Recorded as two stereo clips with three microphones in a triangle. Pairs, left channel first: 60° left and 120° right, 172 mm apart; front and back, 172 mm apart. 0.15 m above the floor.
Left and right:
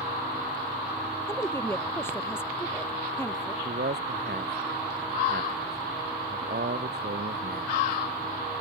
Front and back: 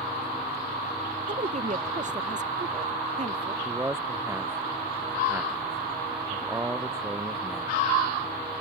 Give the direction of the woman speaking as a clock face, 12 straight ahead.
7 o'clock.